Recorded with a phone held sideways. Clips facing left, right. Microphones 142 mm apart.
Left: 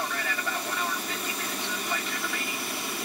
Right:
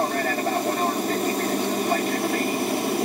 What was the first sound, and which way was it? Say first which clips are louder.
An aircraft: right 9 dB; 45° right (ahead or behind).